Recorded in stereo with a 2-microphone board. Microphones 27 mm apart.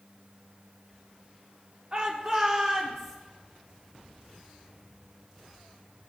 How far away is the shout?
About 1.0 m.